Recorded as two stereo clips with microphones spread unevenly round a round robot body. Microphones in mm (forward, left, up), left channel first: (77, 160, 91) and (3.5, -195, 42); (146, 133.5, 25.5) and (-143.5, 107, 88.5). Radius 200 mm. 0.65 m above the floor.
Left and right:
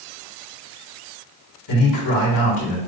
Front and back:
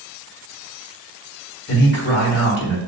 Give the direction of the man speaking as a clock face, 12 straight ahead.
11 o'clock.